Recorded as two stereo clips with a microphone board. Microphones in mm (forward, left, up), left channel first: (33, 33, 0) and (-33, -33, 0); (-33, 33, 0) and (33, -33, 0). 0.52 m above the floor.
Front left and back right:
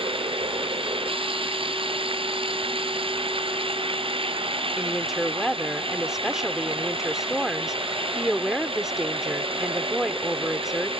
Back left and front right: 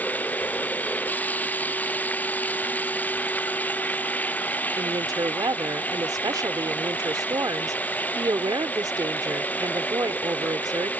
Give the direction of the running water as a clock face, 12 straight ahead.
5 o'clock.